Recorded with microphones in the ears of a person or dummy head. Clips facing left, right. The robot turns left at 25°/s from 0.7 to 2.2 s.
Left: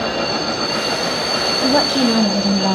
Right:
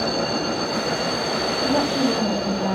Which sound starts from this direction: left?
A woman speaking, at 1.6 s.